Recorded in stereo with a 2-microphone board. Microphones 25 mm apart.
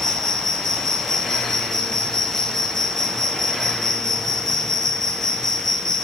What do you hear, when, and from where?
0.0 s an insect: 15° left (ahead or behind), 1.2 m